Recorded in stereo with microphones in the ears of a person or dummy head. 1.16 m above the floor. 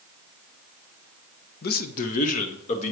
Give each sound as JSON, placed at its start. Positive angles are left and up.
{"t": 1.6, "sound": "a man speaking", "side_deg": 50, "distance_m": 0.8}